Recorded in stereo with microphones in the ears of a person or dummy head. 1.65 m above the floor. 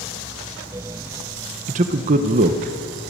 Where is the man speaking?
40° right (ahead or behind), 1.0 m.